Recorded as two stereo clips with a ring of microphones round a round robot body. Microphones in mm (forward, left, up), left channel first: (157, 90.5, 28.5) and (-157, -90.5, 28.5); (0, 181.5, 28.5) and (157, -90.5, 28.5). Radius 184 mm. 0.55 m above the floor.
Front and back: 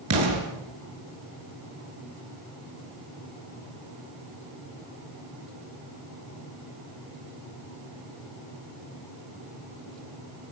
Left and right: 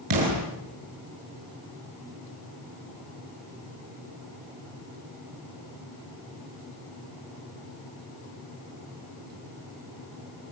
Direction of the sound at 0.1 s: 100° right.